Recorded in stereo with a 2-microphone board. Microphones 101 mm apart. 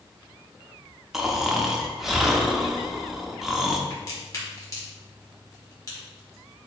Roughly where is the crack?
Left.